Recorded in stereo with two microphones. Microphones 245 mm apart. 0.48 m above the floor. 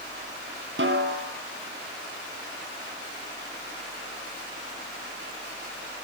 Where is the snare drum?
55° right (ahead or behind), 2 m.